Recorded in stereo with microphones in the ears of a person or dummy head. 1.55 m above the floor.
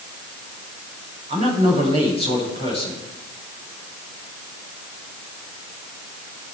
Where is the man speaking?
40° right (ahead or behind), 8 m.